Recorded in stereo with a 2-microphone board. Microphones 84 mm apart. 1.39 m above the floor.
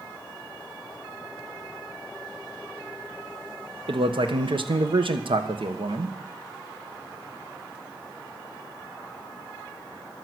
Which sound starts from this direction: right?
A man speaking, at 3.9 s.